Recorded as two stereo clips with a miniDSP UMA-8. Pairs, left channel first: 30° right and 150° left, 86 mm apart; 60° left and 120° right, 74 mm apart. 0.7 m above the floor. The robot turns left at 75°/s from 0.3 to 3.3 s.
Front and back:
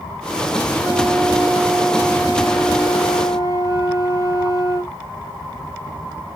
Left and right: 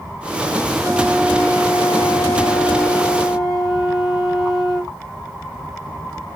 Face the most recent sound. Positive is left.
turn(degrees=-30)